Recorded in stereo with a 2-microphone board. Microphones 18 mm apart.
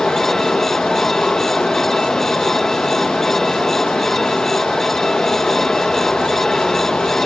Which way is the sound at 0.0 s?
45° left (ahead or behind).